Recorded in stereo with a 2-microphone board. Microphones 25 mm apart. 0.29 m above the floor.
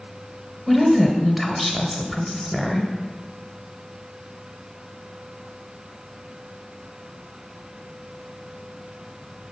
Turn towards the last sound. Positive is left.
turn(degrees=-5)  # may be behind; listen again after turning